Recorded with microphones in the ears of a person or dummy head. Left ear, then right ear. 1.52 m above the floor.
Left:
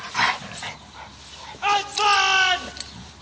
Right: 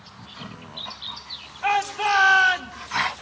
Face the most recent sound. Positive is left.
turn(degrees=30)  # may be behind; listen again after turning